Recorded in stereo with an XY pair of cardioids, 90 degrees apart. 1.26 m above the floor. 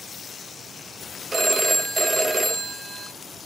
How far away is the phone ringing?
About 0.8 m.